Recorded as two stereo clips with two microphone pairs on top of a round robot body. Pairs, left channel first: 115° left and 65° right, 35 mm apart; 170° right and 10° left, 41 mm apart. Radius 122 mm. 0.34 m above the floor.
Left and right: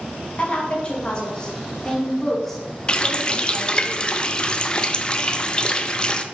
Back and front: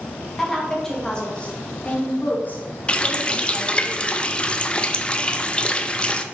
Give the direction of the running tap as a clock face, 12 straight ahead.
7 o'clock.